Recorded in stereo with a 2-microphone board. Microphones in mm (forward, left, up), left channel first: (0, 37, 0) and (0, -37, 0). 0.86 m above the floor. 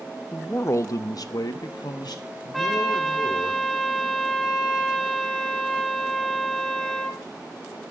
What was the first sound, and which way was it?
A man speaking, 20° left (ahead or behind).